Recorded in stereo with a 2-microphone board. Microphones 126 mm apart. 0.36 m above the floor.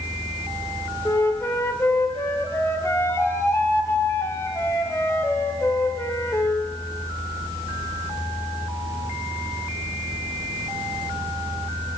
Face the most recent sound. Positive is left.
turn(degrees=20)  # may be behind; listen again after turning